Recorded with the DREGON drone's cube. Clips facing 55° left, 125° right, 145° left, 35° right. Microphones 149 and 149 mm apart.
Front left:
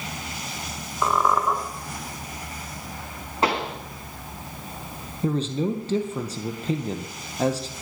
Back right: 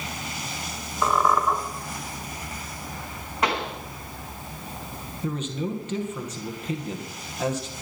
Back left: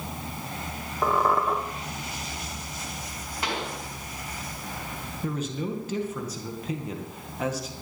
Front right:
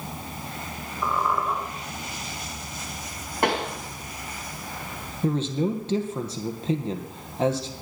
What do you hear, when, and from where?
1.0 s a squeak: 140° left, 2.5 m
3.4 s a pop: 5° right, 2 m
5.2 s a man speaking: 15° left, 1.9 m